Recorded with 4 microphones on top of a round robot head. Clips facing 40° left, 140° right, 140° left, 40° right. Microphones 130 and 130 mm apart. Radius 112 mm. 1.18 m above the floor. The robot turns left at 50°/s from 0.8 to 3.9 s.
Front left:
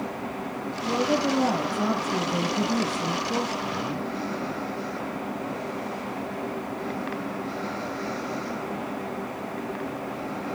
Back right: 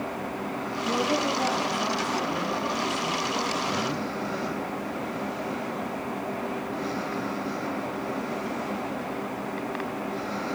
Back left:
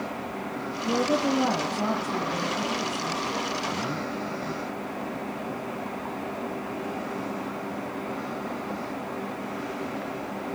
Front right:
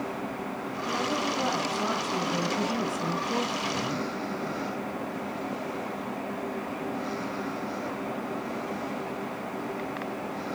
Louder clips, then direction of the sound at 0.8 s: Front left 2 dB, back left 6 dB; 120° left.